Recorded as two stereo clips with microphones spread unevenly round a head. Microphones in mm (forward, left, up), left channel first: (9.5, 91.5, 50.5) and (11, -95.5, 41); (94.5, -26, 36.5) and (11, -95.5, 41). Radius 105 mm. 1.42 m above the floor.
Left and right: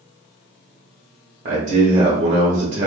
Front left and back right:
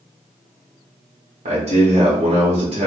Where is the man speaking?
140° right, 0.7 m.